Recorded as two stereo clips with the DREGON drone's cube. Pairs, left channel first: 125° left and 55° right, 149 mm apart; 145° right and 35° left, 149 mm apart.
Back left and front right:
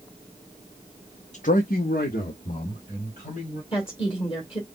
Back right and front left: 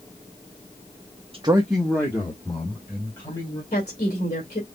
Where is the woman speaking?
175° left, 2 m.